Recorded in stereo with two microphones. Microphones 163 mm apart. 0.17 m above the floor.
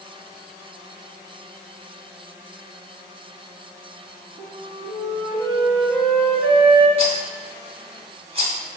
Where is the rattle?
40° right (ahead or behind), 0.7 m.